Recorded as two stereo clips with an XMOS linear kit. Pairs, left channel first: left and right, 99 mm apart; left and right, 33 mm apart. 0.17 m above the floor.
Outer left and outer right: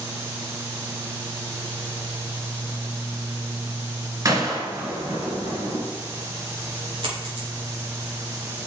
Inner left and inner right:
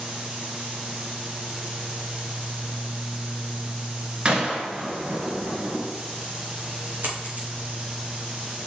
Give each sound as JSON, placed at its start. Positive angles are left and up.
{"t": 4.2, "sound": "a gunshot", "side_deg": -35, "distance_m": 1.7}
{"t": 7.0, "sound": "a dropped coin", "side_deg": -60, "distance_m": 4.0}